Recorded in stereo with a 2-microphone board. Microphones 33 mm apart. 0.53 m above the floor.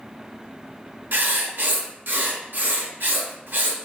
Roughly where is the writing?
Right.